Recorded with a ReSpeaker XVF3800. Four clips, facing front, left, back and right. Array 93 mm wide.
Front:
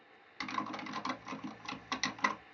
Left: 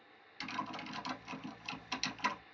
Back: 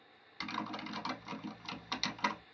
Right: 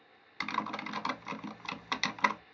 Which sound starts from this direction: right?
Typing on a keyboard, at 0.4 s.